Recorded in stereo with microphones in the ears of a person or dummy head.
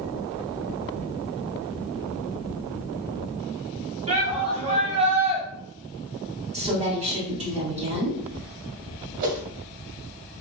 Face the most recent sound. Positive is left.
turn(degrees=-45)  # may be behind; listen again after turning